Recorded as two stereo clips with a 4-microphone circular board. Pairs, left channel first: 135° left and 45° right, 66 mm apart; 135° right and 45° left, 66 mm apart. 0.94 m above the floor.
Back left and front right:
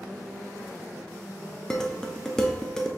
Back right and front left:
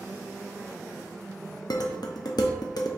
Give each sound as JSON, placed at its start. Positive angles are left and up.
{"t": 1.7, "sound": "dishes clattering", "azimuth_deg": -145, "distance_m": 0.5}